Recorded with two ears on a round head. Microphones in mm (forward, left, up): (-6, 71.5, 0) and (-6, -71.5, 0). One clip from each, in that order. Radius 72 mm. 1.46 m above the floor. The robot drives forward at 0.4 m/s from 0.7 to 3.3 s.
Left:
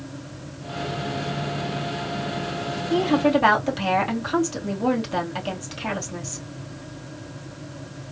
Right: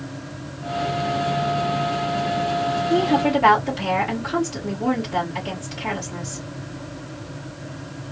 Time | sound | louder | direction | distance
2.9 | a woman speaking | left 1 dB | 35° left (ahead or behind) | 3.5 m